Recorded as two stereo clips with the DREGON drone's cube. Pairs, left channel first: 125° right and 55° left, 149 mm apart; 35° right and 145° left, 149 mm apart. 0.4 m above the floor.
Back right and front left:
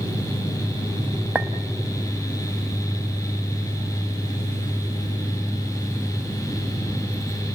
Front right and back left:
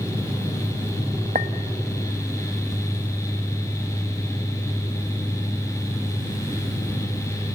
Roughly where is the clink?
Behind left.